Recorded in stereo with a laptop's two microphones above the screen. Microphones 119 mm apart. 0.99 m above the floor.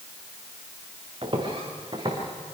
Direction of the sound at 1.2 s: 45° right (ahead or behind).